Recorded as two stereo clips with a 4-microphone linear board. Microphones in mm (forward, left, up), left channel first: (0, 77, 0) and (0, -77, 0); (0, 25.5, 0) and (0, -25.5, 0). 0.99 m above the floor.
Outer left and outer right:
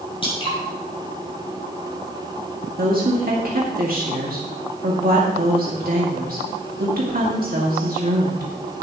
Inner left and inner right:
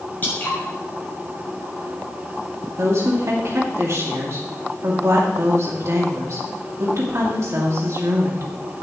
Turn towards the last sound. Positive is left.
turn(degrees=-65)  # may be behind; listen again after turning